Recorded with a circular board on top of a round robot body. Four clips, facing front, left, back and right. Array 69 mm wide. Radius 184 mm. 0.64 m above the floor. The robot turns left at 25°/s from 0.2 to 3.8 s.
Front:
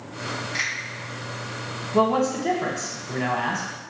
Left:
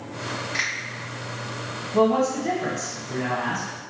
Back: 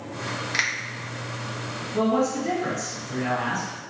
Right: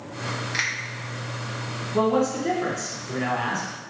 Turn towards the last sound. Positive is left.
turn(degrees=-30)